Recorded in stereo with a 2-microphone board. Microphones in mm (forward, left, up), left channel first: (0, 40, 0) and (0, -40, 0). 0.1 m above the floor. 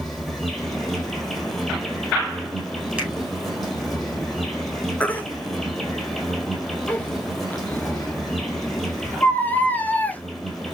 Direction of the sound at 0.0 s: 5° left (ahead or behind).